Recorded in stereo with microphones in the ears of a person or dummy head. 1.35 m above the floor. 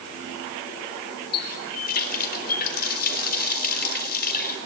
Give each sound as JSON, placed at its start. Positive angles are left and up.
{"t": 1.3, "sound": "a running tap", "side_deg": 50, "distance_m": 3.5}